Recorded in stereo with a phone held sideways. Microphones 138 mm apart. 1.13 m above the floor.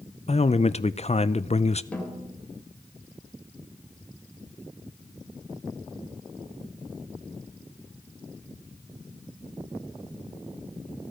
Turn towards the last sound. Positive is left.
turn(degrees=10)  # may be behind; listen again after turning